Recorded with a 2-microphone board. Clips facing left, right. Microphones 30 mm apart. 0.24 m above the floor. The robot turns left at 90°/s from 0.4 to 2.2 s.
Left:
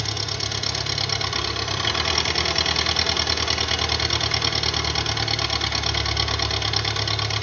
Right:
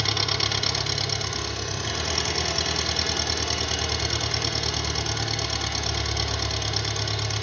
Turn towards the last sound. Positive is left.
turn(degrees=50)